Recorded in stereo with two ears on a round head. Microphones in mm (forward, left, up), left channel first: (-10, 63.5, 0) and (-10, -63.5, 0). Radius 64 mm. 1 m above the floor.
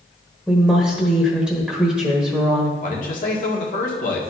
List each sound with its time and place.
0.5 s a woman speaking: centre (ahead or behind), 1.5 m
2.8 s a man speaking: 65° left (ahead or behind), 1.8 m